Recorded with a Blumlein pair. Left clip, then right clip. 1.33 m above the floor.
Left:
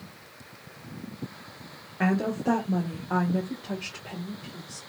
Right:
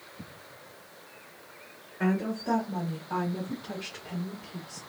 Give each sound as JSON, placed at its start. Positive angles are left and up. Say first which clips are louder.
{"t": 2.0, "sound": "a woman speaking", "louder": "left 4 dB", "azimuth_deg": 65, "distance_m": 0.6}